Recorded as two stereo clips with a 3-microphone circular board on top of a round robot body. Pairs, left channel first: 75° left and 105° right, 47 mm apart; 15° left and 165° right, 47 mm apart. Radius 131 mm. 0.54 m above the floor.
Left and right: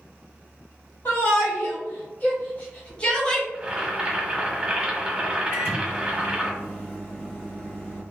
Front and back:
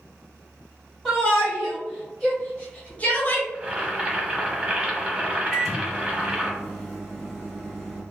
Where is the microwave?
110° left, 1.9 m.